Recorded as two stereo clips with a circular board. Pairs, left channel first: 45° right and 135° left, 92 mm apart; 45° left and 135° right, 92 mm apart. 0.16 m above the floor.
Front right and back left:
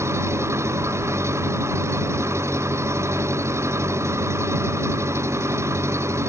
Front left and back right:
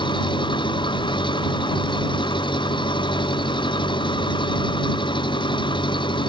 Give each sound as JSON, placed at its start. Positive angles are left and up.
{"t": 0.0, "sound": "an engine running", "azimuth_deg": 75}